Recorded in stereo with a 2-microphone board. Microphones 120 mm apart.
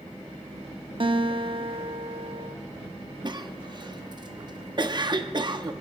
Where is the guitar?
45° right (ahead or behind), 0.7 m.